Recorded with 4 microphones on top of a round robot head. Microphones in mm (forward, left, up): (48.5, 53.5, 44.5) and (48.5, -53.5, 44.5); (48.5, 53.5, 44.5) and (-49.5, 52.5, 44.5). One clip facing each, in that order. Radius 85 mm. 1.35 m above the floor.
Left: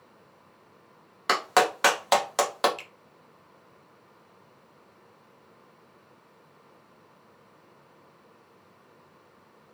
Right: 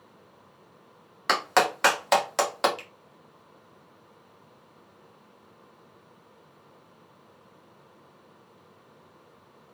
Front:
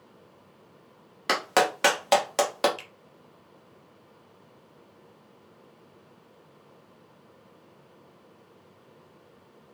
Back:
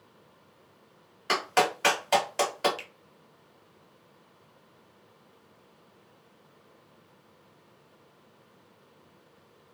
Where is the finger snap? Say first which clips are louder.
Right 2 dB, back 1 dB; 45° left, 1.1 m.